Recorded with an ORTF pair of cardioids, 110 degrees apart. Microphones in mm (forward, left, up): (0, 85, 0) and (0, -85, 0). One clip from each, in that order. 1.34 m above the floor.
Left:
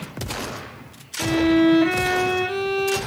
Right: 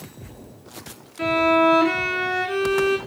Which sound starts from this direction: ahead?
A violin, at 1.2 s.